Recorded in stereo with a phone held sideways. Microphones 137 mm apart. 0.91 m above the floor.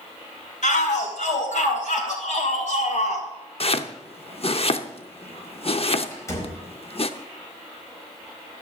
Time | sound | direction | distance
0.6 | a shout | 80° left | 5 m
3.6 | chopping | 50° left (ahead or behind) | 0.7 m
6.1 | a door slam | 20° left (ahead or behind) | 4.5 m